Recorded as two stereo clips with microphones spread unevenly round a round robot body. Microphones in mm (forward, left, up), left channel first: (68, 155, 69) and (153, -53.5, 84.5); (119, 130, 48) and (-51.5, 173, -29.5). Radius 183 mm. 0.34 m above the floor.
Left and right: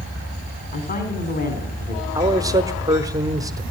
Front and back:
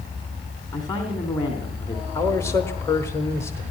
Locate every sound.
0.7 s a woman speaking: 60° left, 3 m
2.1 s a man speaking: 130° right, 1.0 m